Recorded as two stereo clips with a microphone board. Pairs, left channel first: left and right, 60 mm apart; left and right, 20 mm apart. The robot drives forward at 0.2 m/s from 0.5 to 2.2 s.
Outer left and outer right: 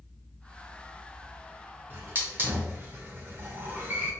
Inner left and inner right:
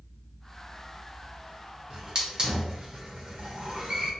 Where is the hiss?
35° right (ahead or behind), 0.8 m; by 4.1 s 30° right (ahead or behind), 0.9 m.